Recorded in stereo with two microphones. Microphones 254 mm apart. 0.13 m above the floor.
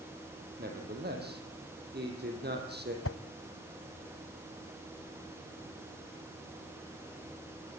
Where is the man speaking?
40° right (ahead or behind), 5.5 m.